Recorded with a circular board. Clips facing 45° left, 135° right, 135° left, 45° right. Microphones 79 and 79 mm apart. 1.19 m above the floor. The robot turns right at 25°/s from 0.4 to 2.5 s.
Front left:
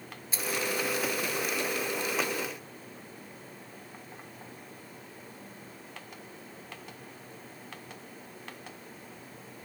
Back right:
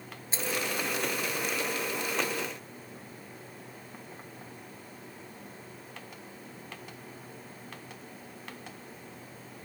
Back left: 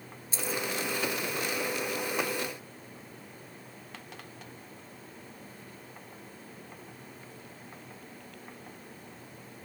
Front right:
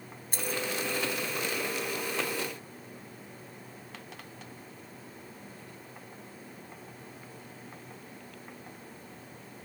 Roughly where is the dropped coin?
Right.